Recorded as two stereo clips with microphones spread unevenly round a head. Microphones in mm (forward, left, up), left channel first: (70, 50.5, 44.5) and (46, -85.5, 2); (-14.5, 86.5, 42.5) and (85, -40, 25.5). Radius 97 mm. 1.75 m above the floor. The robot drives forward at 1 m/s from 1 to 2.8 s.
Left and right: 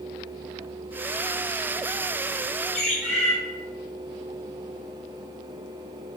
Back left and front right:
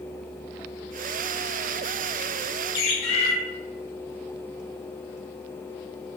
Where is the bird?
130° left, 1.0 m; by 3.3 s 135° left, 1.0 m.